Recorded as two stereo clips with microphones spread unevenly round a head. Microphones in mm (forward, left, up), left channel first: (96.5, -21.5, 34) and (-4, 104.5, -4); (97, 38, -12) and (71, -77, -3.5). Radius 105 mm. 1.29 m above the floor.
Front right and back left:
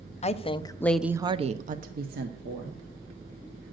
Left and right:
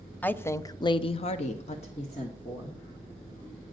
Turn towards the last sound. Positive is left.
turn(degrees=135)